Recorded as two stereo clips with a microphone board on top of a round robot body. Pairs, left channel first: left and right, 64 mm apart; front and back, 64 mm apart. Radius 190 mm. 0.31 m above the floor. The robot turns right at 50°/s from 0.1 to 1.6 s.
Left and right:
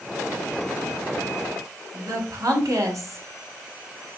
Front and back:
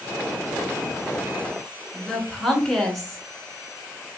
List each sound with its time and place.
1.9 s a woman speaking: 85° right, 2 m